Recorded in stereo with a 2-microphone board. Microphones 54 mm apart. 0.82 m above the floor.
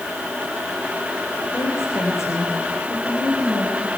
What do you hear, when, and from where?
1.5 s a woman speaking: 55° left (ahead or behind), 4.5 m; by 3.9 s 75° left (ahead or behind), 5 m